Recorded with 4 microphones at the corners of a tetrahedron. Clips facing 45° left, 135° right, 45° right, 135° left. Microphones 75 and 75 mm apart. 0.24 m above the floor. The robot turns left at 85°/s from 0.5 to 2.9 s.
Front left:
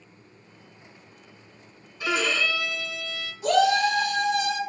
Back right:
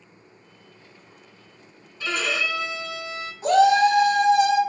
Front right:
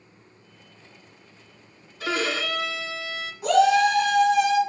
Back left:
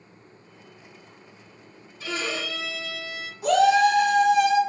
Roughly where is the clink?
I don't hear a clink.